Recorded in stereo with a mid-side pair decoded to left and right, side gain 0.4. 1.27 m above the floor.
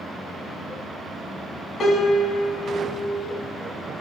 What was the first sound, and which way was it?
A piano, 65° left.